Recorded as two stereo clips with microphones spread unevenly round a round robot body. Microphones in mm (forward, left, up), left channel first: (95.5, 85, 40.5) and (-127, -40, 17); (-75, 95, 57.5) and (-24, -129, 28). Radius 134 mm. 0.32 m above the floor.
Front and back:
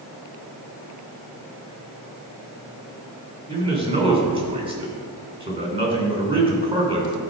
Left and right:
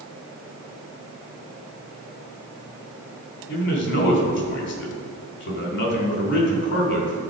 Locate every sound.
3.5 s a man speaking: 140° left, 3 m